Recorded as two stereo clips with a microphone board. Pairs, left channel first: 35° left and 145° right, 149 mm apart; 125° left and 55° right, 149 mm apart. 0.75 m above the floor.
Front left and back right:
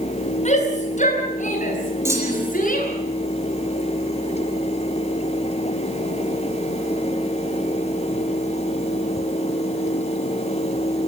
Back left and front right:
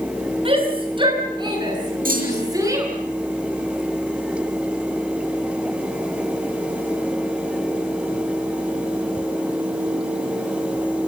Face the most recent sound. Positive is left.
turn(degrees=-75)